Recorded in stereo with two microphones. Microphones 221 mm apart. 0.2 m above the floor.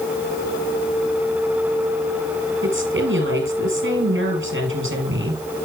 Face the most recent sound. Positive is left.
turn(degrees=-70)  # may be behind; listen again after turning